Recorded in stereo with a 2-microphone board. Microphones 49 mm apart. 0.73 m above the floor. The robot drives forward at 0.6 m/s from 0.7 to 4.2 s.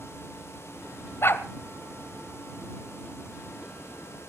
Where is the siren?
I don't hear a siren.